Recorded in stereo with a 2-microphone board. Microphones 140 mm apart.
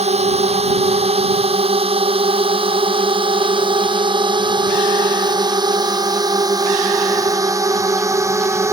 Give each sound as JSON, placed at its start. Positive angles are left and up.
{"t": 0.0, "sound": "a drone", "side_deg": -50}